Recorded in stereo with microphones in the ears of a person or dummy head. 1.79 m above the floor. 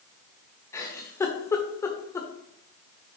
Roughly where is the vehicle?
No vehicle in this recording.